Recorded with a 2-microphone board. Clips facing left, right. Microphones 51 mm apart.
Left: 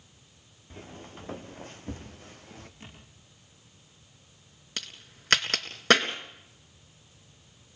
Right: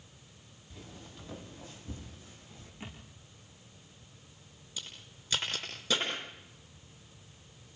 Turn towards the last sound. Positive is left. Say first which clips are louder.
# left 5 dB
turn(degrees=75)  # may be behind; listen again after turning